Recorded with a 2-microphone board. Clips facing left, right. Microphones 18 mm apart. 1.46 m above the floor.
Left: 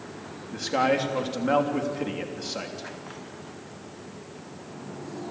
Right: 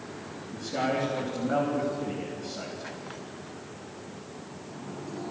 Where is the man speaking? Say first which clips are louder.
Left 5 dB; 75° left (ahead or behind), 3 m.